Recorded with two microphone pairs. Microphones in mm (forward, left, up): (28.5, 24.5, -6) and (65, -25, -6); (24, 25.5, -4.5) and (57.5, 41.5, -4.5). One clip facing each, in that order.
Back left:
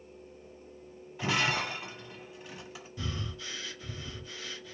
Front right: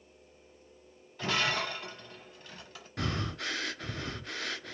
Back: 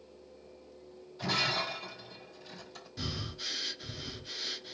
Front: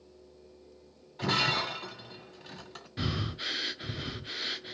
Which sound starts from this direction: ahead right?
Breathing, at 3.0 s.